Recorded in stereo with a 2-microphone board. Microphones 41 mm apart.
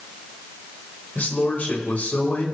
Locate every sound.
1.1 s a man speaking: 40° left (ahead or behind), 2.5 m